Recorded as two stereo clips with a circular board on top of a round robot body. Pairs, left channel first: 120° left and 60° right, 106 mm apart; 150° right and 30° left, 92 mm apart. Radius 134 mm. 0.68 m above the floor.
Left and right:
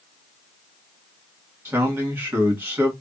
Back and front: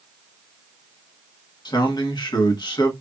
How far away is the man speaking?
About 1.8 m.